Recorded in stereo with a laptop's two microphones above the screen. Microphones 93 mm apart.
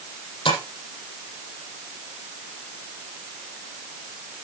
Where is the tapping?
65° left (ahead or behind), 7.5 m.